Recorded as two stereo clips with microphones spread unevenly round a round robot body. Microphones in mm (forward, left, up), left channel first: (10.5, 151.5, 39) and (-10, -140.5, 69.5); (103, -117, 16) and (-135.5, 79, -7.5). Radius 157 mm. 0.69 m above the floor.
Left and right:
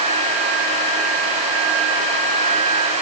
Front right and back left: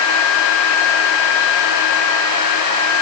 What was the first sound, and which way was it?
Only background noise.